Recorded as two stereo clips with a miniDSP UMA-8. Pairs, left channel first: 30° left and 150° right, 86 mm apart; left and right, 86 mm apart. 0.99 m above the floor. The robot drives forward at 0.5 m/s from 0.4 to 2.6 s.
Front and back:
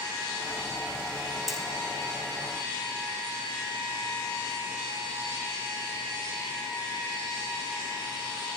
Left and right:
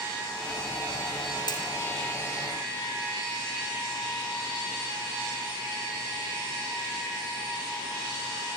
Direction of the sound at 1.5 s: 120° left.